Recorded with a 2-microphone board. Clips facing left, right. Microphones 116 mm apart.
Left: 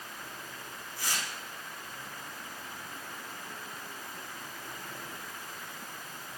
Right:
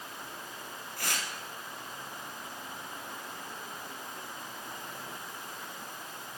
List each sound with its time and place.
1.0 s tearing paper: 65° right (ahead or behind), 2 m